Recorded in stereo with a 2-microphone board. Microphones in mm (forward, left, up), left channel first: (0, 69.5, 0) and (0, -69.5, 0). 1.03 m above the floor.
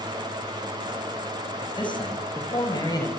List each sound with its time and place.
1.6 s a man speaking: 35° left (ahead or behind), 8.5 m; by 3.1 s 25° left (ahead or behind), 6.5 m